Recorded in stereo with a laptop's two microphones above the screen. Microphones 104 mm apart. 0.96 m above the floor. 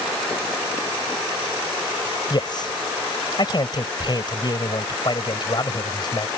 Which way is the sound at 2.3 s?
45° left (ahead or behind).